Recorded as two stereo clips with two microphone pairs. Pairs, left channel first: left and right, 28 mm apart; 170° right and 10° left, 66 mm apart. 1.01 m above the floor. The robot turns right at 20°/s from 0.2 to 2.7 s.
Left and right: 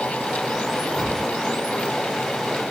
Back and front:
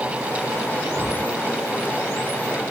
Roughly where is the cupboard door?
Ahead left.